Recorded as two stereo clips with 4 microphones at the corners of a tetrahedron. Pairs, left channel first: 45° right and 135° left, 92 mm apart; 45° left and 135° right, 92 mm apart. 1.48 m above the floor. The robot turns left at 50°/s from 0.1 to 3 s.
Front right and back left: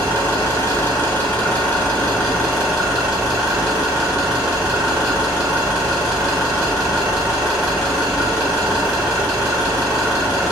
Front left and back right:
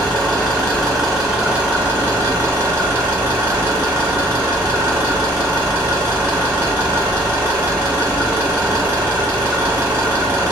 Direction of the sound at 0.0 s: 10° right.